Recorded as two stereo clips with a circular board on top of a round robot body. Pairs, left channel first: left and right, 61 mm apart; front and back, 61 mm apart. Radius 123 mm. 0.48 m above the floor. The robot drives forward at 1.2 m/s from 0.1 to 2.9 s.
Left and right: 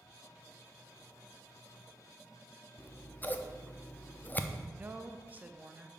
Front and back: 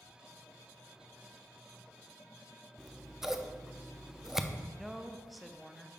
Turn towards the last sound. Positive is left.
turn(degrees=-90)